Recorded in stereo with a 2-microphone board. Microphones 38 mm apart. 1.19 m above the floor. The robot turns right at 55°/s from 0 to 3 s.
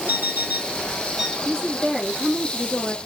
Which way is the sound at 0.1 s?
70° right.